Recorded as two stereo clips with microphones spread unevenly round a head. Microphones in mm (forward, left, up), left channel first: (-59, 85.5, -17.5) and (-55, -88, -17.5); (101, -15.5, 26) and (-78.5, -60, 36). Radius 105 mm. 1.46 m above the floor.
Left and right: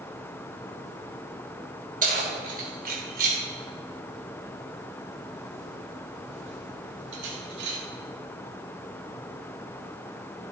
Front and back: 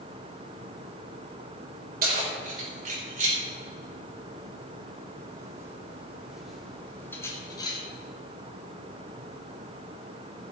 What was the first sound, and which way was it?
Keys jangling, 125° right.